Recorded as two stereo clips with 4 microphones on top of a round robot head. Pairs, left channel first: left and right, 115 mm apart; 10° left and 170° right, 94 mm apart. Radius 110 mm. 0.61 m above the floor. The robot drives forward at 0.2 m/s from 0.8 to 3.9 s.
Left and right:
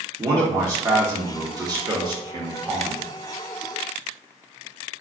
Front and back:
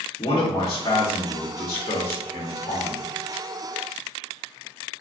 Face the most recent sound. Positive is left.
turn(degrees=-65)